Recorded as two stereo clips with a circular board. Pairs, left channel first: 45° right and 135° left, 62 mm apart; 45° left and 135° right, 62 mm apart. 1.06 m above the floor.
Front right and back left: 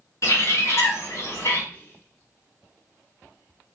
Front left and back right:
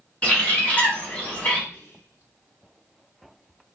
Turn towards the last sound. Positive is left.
turn(degrees=10)